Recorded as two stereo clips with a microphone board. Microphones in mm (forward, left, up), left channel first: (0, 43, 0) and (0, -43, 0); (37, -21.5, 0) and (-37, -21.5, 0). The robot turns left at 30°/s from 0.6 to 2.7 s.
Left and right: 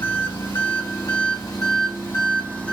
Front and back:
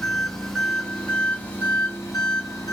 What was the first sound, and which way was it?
An engine running, 80° left.